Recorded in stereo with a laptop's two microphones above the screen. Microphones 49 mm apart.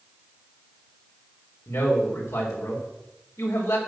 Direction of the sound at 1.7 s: 80° left.